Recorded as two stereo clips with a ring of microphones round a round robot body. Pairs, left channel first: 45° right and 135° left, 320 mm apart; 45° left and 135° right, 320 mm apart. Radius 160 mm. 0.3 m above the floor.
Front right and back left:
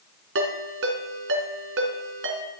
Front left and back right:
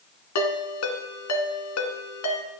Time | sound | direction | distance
0.3 | a ringtone | 85° left | 2 m